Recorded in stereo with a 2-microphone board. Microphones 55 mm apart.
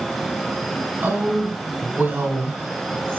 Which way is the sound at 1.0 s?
35° right (ahead or behind).